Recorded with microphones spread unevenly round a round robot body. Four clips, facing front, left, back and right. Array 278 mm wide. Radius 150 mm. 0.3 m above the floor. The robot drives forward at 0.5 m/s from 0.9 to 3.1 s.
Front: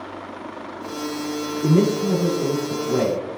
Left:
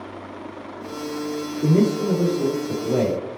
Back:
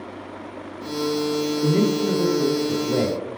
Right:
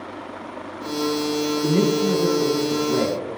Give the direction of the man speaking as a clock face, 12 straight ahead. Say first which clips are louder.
Left 2 dB, front 3 dB; 8 o'clock.